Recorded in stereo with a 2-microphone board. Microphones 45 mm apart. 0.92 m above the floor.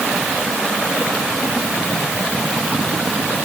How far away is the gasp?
I don't hear a gasp.